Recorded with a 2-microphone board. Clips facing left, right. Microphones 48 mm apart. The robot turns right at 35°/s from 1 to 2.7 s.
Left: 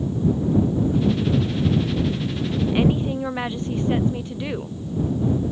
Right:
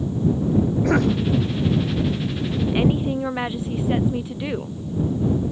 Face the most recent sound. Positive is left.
turn(degrees=-5)  # may be behind; listen again after turning